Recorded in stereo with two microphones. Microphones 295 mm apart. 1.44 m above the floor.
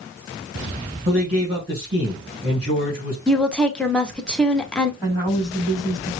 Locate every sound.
1.1 s a man speaking: 30° right (ahead or behind), 2 m
3.3 s a woman speaking: 5° left (ahead or behind), 0.7 m
5.0 s a woman speaking: 10° right (ahead or behind), 3.5 m